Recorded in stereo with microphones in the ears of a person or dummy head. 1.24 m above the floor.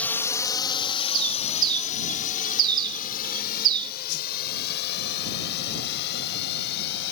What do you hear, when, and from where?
0.0 s a drone: 10° left (ahead or behind); by 7.1 s 60° left (ahead or behind)
1.1 s a bird: 25° right (ahead or behind)
4.1 s a whoosh: 65° left (ahead or behind)